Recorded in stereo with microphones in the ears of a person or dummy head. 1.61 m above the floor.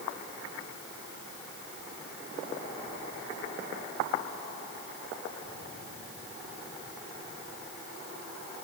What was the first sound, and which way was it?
Only background noise.